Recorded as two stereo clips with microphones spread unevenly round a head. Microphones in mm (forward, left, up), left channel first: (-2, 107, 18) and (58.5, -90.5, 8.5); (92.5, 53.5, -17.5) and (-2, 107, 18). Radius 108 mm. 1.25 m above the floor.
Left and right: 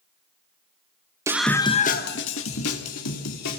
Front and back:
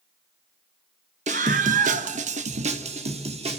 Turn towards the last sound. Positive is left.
turn(degrees=125)